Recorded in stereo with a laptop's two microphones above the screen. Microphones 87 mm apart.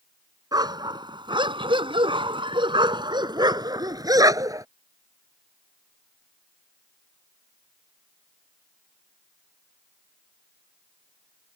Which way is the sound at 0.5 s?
50° right (ahead or behind).